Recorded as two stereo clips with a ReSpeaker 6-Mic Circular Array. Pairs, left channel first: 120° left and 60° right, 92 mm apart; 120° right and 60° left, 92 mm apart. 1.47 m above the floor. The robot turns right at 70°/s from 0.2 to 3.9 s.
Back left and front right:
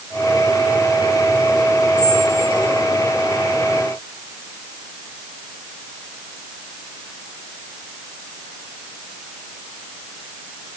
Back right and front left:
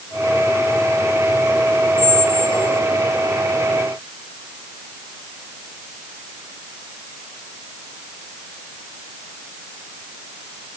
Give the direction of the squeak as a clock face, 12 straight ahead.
5 o'clock.